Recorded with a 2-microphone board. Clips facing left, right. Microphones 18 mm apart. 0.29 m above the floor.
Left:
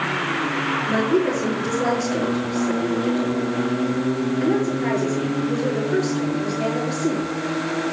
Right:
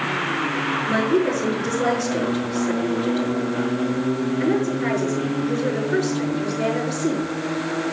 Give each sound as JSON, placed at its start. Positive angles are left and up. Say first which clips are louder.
{"t": 0.9, "sound": "a woman speaking", "louder": "even", "side_deg": -40, "distance_m": 5.5}